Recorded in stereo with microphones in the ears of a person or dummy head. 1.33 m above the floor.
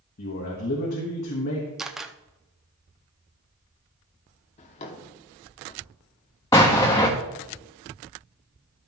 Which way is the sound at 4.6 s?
35° left (ahead or behind).